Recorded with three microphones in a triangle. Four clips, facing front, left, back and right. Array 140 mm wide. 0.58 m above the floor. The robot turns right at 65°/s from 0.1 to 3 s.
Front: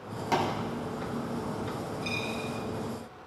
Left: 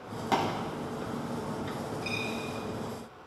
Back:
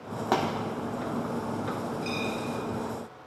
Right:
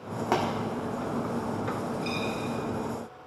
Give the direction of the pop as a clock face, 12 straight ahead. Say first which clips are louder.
Right 1 dB, back 1 dB; 5 o'clock.